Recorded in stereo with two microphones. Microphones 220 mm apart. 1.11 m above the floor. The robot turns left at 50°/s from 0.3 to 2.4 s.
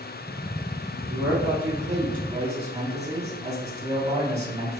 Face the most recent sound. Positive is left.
turn(degrees=-155)